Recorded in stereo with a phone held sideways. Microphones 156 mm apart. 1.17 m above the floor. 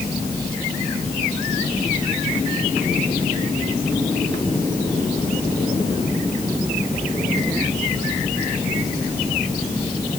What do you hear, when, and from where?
Only background noise.